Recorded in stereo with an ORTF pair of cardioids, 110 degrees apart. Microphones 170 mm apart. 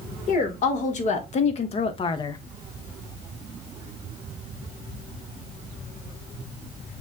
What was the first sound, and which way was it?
A woman speaking, 50° left.